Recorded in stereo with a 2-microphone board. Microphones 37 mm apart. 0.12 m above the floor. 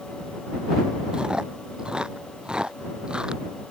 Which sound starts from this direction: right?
Chewing, at 1.1 s.